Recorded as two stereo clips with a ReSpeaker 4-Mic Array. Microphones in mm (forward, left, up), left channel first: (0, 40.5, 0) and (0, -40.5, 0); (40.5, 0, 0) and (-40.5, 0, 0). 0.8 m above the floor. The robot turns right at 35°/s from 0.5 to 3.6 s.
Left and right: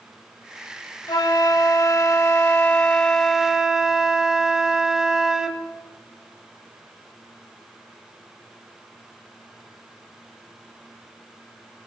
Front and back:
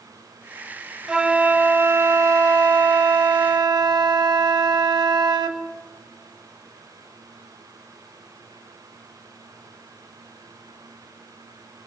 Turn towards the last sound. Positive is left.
turn(degrees=-175)